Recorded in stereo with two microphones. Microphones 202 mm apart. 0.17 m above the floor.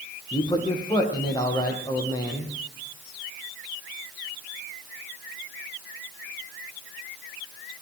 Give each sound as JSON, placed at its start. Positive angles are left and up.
{"t": 0.3, "sound": "a man speaking", "side_deg": 20, "distance_m": 8.0}